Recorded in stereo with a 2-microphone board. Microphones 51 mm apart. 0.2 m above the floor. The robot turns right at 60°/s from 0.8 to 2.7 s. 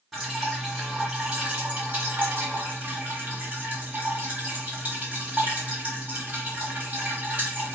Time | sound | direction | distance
0.1 | dripping | 170° right | 2.0 m